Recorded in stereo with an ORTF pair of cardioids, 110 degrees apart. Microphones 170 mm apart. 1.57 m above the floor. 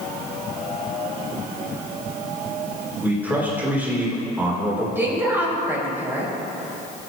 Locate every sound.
3.0 s a man speaking: 10° right, 4.5 m
5.0 s a woman speaking: 10° right, 3.5 m